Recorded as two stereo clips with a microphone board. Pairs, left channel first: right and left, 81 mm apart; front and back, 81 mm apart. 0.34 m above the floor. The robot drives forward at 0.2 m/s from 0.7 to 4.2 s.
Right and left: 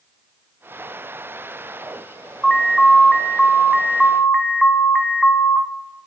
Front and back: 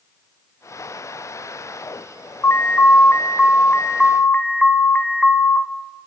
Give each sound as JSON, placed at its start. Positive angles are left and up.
{"t": 2.4, "sound": "an alarm", "azimuth_deg": -20, "distance_m": 0.8}